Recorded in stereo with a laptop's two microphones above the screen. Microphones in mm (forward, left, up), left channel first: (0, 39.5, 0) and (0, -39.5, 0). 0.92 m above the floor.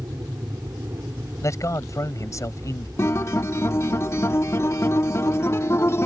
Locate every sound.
0.0 s an aircraft: 40° right (ahead or behind)
1.4 s a man speaking: 40° left (ahead or behind)
3.0 s a guitar: 35° left (ahead or behind)